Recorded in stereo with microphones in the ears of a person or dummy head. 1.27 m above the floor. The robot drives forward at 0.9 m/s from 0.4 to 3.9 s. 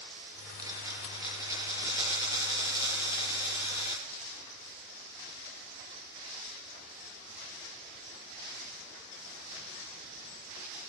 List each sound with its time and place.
0.6 s a dropped coin: 20° right (ahead or behind), 8.5 m; by 4.0 s 15° right (ahead or behind), 11.5 m